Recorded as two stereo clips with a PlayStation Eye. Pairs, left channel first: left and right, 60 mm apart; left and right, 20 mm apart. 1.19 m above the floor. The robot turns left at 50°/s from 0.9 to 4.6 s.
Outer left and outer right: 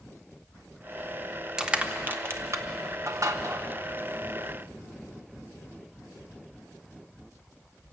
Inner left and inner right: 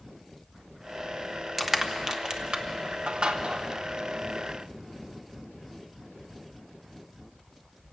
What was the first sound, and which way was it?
Crushing, 10° right (ahead or behind).